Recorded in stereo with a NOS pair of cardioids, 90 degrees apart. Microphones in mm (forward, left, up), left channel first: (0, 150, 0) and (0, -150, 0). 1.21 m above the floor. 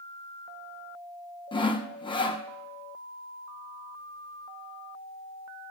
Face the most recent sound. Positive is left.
turn(degrees=15)